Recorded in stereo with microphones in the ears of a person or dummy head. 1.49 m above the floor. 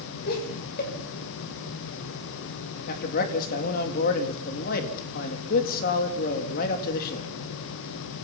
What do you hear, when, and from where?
0.3 s laughter: 55° left (ahead or behind), 6.5 m
2.9 s a man speaking: 50° left (ahead or behind), 3 m